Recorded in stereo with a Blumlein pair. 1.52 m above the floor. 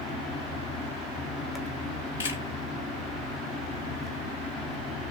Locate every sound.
0.0 s a fan: 20° left, 0.9 m
2.2 s a camera shutter: 65° left, 1.4 m